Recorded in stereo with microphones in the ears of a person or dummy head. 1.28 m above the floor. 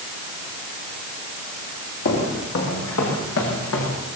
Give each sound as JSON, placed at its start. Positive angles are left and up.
{"t": 2.0, "sound": "footsteps", "side_deg": 65, "distance_m": 7.5}